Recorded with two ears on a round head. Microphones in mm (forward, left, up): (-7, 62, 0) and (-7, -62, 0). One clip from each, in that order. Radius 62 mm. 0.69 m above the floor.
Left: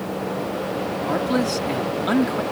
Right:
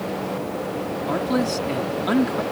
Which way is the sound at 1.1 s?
10° left (ahead or behind).